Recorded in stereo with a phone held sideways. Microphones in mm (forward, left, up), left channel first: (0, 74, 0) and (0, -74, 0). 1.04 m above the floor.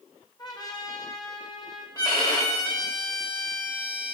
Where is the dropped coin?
I don't hear a dropped coin.